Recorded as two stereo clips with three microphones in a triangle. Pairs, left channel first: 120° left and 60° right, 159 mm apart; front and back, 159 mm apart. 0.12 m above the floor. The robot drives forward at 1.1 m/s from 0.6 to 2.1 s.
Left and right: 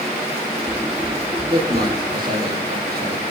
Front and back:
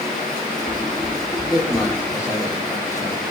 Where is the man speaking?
65° right, 6.5 m; by 3.2 s 70° right, 6 m.